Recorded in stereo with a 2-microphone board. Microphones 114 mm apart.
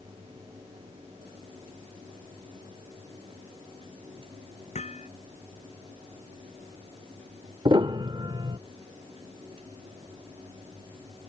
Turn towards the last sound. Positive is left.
turn(degrees=-45)  # may be behind; listen again after turning